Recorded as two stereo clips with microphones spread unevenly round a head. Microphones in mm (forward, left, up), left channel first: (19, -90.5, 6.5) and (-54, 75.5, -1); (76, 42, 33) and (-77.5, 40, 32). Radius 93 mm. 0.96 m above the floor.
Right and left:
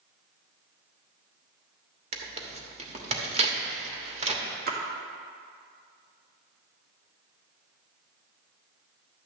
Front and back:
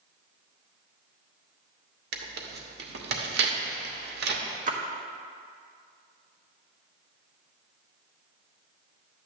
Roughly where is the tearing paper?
Behind.